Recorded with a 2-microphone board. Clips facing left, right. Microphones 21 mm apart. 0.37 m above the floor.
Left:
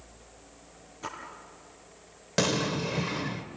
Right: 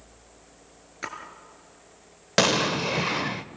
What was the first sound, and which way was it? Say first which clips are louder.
A splash: right 3 dB; 65° right (ahead or behind).